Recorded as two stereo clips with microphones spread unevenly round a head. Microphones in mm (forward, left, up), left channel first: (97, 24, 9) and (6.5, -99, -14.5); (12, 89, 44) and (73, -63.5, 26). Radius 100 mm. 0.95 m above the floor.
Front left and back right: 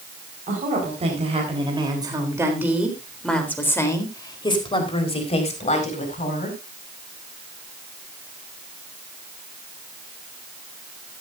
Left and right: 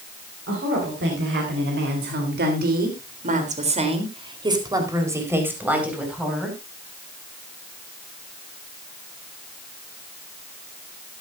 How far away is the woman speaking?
About 5 m.